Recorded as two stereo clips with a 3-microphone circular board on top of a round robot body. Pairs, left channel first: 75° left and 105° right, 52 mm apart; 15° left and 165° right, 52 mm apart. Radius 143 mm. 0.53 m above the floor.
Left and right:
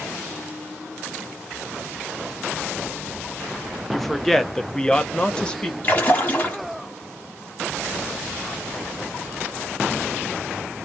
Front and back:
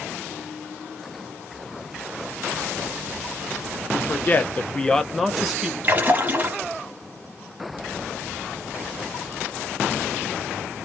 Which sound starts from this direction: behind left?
A splash, at 5.8 s.